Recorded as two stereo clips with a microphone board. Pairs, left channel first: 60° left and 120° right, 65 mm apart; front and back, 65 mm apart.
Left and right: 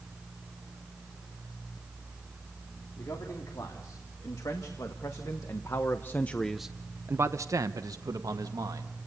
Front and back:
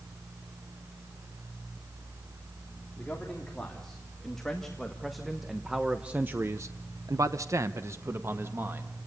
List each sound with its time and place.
3.0 s a man speaking: 75° left, 3.5 m; by 8.9 s 130° right, 2 m